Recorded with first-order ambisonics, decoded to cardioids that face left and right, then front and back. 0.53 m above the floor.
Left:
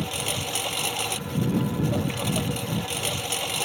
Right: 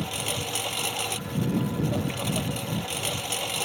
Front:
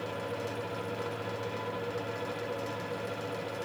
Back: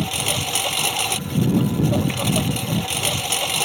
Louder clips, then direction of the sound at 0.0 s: Left 1 dB, back 12 dB; 175° left.